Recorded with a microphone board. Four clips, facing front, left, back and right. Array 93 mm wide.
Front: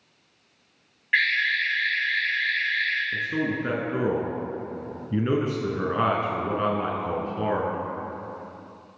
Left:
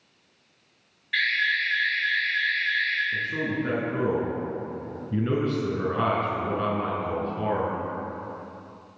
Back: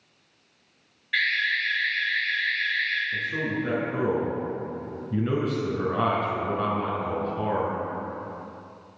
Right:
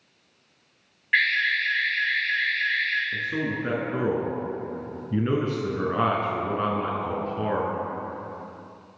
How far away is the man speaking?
About 1.5 m.